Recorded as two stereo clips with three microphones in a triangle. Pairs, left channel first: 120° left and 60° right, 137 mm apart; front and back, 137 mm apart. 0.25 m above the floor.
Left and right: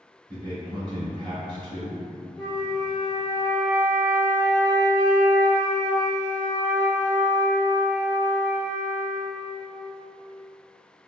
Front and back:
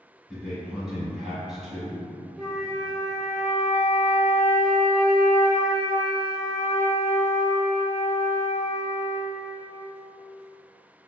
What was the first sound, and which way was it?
A man speaking, 95° right.